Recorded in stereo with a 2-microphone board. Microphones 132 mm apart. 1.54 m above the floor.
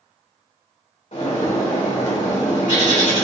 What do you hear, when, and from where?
1.1 s a bird: 65° left (ahead or behind), 2.5 m